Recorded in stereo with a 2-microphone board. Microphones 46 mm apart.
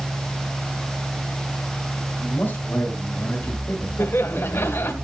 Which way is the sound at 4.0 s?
65° left (ahead or behind).